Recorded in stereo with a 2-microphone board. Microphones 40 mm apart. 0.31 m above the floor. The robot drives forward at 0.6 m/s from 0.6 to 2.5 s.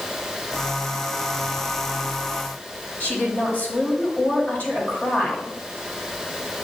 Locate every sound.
3.0 s a woman speaking: 45° left (ahead or behind), 1.6 m